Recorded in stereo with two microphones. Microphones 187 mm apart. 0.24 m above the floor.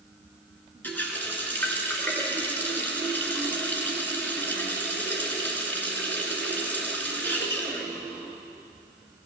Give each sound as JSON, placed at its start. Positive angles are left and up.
{"t": 0.8, "sound": "a running tap", "side_deg": 10, "distance_m": 2.0}